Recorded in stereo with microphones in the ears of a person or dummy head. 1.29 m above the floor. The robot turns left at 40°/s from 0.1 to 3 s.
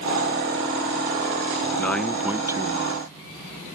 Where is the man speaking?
10° left; by 3.1 s 40° right.